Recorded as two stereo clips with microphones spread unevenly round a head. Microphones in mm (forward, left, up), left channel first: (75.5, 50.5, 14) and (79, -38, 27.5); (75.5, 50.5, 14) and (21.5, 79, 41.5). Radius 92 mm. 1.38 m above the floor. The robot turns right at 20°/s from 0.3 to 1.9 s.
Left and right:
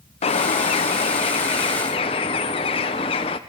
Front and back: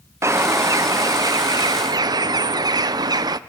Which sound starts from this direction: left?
A bird, at 0.2 s.